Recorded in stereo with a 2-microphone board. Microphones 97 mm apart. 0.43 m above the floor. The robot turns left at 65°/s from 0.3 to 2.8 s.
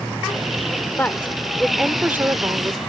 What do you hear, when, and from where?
1.0 s a woman speaking: 40° left; by 2.8 s 75° right